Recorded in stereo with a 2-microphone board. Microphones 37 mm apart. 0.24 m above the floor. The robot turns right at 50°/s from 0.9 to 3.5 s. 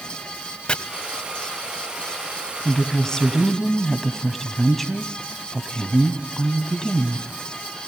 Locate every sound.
0.7 s chopping: 30° left (ahead or behind), 1.1 m
2.6 s a woman speaking: 130° left, 1.6 m; by 7.2 s 170° left, 1.6 m